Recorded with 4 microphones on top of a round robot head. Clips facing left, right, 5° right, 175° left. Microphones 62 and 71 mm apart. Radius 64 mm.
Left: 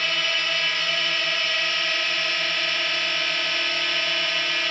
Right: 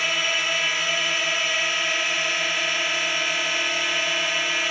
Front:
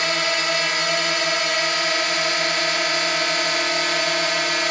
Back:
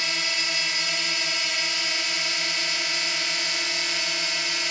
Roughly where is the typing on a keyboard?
I don't hear typing on a keyboard.